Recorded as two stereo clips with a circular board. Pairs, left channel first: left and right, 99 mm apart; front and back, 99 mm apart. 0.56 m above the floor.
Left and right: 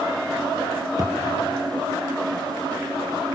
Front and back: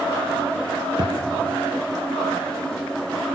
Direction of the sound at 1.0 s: 140° right.